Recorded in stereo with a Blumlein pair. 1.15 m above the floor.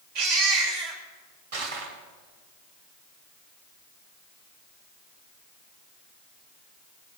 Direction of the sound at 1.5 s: 50° right.